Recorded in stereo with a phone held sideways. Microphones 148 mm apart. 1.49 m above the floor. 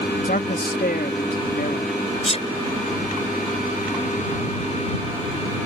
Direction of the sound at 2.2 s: 45° left (ahead or behind).